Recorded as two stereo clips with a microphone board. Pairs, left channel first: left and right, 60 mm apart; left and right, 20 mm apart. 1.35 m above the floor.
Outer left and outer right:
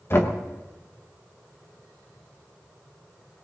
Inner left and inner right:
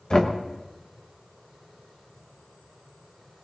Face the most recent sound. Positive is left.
turn(degrees=45)  # may be behind; listen again after turning